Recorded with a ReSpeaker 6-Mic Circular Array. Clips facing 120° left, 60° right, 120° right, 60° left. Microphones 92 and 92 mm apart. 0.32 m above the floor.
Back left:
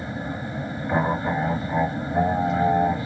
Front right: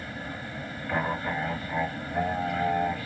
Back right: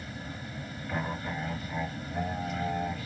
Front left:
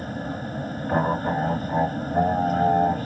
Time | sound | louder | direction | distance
0.0 | an aircraft | back left 7 dB, front left 10 dB | 60° left | ?